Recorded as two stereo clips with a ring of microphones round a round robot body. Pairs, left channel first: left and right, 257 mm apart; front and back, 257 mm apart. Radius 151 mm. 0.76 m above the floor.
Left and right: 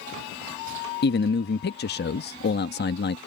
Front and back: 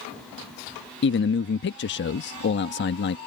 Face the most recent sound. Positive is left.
turn(degrees=40)